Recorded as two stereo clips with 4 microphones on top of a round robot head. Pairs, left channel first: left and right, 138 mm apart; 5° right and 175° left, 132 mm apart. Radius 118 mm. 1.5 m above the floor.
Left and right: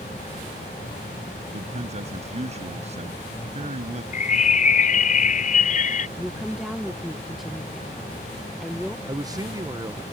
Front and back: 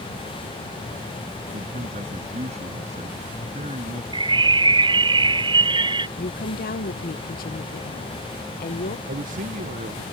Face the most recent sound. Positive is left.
turn(degrees=-155)